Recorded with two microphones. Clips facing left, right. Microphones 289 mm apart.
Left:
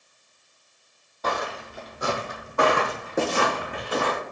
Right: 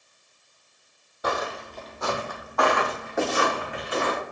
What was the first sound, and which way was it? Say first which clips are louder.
Footsteps: right 1 dB; 10° right (ahead or behind).